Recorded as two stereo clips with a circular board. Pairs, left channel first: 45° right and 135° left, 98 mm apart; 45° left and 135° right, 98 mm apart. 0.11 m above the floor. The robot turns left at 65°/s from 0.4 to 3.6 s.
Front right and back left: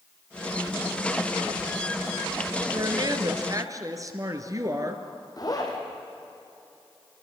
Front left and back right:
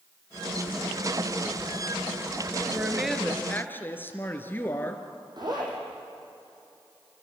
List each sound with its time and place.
2.7 s a woman speaking: 160° left, 2 m; by 5.0 s 105° left, 2 m
5.4 s a zipper: 95° right, 4.5 m